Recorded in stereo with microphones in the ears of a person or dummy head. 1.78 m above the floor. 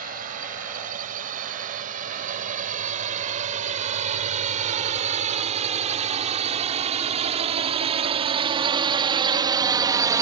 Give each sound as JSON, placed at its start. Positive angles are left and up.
{"t": 0.0, "sound": "a drone", "side_deg": -45}